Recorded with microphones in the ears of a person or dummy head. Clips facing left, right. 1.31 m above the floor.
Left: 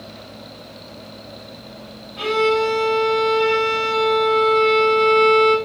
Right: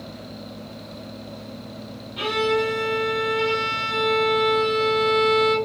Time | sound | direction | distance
2.2 | a violin | 55° right (ahead or behind) | 1.6 m